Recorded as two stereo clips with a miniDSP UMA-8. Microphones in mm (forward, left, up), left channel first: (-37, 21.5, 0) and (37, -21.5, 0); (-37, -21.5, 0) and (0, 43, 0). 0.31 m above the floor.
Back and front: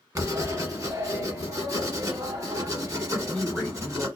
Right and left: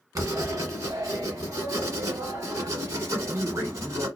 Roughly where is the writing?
Ahead.